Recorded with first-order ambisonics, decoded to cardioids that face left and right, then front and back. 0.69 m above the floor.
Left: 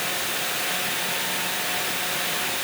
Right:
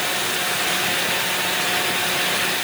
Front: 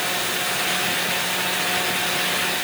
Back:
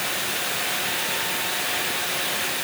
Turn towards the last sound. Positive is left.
No sound to turn to.